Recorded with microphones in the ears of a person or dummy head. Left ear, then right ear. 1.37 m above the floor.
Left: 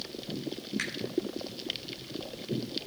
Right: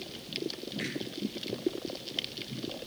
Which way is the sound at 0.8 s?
65° left (ahead or behind).